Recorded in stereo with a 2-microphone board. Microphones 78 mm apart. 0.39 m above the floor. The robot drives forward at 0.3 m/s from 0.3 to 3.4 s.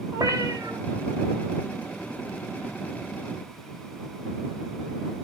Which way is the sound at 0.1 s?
55° right (ahead or behind).